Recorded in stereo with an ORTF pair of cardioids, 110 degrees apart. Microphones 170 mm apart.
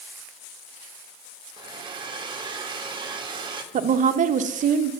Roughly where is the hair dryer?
Ahead right.